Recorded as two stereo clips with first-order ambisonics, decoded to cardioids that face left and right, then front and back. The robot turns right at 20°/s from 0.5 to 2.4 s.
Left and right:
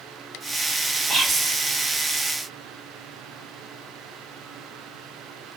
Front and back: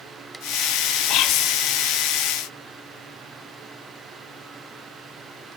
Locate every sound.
1.1 s whispering: 25° right, 1.4 m; by 1.6 s 15° right, 1.4 m